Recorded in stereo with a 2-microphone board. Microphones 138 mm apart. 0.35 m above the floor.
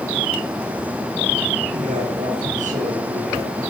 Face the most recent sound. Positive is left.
turn(degrees=-65)  # may be behind; listen again after turning